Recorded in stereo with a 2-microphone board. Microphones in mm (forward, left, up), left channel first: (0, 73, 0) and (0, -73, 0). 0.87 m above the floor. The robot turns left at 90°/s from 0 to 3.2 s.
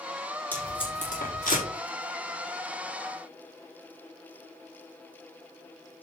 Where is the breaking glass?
I don't hear breaking glass.